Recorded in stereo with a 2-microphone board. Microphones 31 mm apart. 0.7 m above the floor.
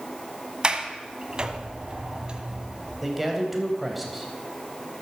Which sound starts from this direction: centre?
A man speaking, at 3.0 s.